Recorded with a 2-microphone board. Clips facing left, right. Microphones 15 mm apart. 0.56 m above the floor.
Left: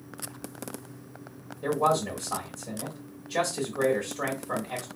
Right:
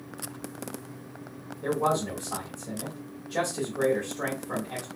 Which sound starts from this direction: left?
A man speaking, at 1.6 s.